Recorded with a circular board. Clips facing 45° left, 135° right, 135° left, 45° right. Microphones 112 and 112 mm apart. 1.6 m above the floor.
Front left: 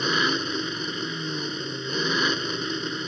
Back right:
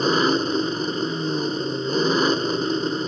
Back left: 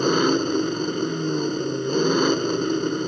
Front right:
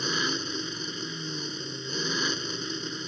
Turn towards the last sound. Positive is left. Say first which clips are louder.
# back right 7 dB, back left 13 dB
turn(degrees=170)